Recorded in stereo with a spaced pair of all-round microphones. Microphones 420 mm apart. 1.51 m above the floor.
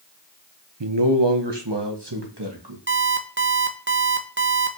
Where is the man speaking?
85° right, 0.9 m; by 2.8 s 65° right (ahead or behind), 2.5 m.